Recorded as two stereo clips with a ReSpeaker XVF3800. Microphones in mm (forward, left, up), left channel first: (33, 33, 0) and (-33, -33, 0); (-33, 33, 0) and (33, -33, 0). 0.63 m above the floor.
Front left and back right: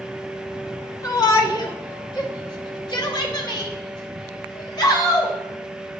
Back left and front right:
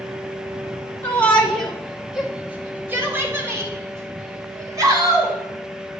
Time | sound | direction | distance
1.0 | a shout | 75° left | 1.3 m